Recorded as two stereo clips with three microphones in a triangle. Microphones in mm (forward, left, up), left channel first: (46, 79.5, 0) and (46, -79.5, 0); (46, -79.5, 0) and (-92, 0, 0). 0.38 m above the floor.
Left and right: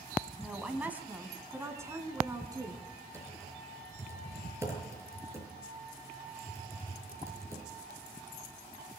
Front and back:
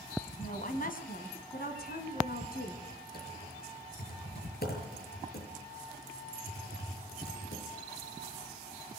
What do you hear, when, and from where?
0.4 s a woman speaking: 5° right, 2.5 m; by 2.8 s 20° right, 4.5 m
3.1 s typing on a keyboard: 15° right, 6.5 m